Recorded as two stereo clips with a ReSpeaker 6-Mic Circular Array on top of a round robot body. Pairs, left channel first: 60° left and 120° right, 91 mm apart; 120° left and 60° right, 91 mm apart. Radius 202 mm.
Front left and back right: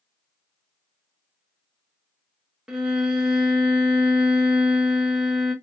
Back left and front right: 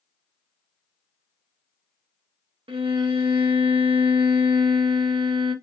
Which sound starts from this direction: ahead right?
A violin, at 2.7 s.